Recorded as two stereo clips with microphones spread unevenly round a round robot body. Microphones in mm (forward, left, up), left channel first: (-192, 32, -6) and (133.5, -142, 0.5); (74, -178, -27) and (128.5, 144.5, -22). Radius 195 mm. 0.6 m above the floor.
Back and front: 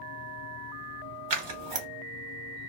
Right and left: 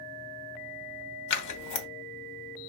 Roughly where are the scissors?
Right.